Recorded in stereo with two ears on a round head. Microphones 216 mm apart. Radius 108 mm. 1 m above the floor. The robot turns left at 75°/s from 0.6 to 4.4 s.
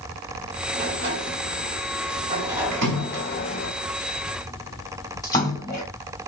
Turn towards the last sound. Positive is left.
turn(degrees=15)  # may be behind; listen again after turning